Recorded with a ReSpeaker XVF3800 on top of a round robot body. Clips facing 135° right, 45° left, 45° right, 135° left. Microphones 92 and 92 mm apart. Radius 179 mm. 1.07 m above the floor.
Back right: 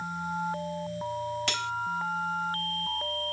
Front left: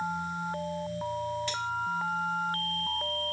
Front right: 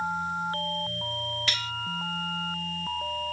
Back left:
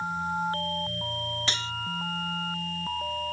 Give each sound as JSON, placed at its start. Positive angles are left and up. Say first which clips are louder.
{"t": 1.5, "sound": "cutlery clinking", "louder": "even, even", "azimuth_deg": -160}